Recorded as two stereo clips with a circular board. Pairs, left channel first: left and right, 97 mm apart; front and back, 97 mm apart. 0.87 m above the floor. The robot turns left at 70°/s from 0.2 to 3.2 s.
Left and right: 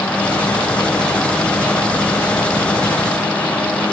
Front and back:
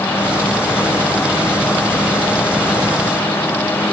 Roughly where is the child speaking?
No child speaking in this recording.